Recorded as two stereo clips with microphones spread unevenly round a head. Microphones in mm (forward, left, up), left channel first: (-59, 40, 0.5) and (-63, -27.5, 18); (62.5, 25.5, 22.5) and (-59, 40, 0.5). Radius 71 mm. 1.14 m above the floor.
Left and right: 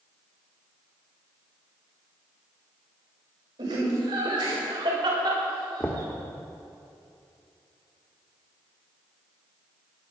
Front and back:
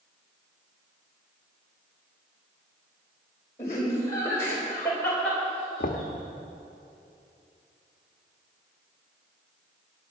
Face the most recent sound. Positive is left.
turn(degrees=5)